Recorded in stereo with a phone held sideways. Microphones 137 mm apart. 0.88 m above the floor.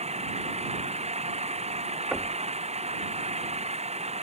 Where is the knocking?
10° right (ahead or behind).